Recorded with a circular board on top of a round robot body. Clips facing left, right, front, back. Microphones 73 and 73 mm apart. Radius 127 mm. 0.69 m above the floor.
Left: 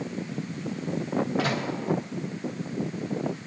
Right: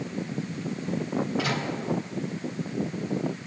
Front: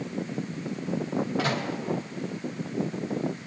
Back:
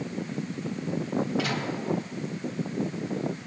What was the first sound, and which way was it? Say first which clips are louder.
A microwave: left 1 dB, front 1 dB; 45° left.